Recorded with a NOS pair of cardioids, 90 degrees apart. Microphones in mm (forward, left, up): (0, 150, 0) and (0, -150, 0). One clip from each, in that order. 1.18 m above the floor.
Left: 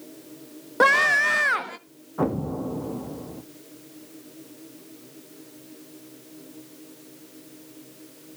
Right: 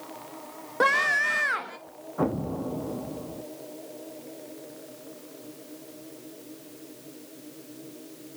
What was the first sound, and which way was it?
A scream, 25° left.